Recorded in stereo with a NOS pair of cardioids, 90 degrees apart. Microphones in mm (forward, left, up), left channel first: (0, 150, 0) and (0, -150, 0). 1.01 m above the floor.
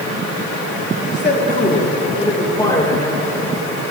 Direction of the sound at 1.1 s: 35° left.